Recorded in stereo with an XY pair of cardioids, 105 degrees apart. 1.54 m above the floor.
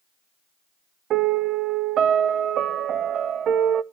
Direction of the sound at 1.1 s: 65° right.